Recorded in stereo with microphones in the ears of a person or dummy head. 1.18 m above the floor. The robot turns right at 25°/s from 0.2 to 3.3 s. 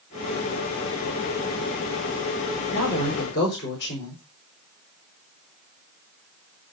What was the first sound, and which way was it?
A woman speaking, 65° left (ahead or behind).